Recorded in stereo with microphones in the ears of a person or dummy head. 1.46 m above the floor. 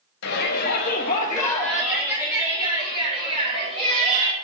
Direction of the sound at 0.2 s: 60° left (ahead or behind).